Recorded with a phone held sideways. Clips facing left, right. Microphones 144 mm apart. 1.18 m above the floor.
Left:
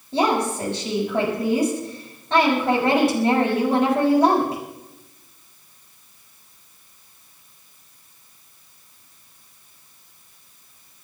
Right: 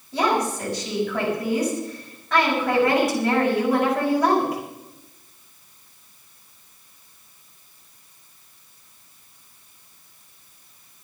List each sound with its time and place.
0.1 s a woman speaking: 30° left (ahead or behind), 6 m